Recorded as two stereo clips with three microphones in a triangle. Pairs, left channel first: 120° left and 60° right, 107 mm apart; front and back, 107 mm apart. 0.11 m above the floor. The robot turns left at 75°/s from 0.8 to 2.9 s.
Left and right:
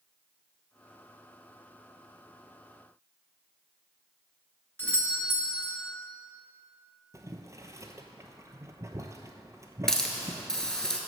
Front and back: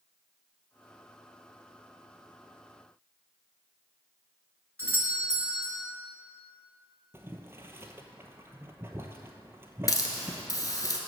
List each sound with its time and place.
4.8 s a doorbell: 165° left, 1.9 m
7.1 s boiling: 115° right, 0.8 m
9.9 s a hiss: 40° left, 1.2 m